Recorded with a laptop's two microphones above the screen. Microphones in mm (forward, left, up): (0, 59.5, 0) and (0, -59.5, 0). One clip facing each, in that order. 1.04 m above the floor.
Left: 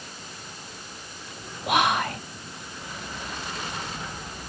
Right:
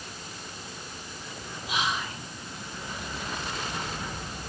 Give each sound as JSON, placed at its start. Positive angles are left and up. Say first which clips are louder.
{"t": 1.7, "sound": "whispering", "louder": "left 8 dB", "side_deg": 60, "distance_m": 0.5}